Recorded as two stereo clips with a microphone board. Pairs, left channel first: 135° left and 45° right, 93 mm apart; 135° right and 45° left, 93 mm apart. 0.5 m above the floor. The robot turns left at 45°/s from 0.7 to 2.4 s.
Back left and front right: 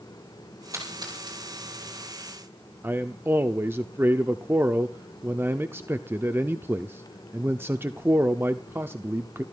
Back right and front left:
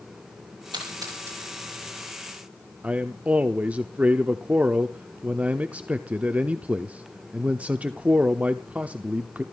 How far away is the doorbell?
I don't hear a doorbell.